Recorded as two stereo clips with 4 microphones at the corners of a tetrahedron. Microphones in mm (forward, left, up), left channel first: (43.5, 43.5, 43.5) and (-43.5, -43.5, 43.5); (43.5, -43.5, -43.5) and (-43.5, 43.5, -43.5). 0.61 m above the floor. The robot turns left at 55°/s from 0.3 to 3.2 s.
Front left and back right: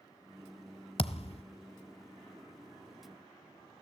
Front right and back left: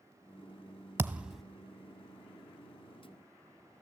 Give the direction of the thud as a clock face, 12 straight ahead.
10 o'clock.